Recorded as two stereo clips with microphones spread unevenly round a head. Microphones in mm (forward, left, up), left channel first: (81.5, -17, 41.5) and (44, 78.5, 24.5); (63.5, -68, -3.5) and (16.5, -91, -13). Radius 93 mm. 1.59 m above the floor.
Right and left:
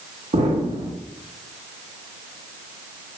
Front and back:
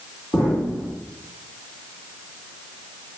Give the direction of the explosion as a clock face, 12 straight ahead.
9 o'clock.